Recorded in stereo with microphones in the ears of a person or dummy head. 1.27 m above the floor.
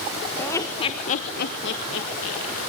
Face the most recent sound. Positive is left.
turn(degrees=80)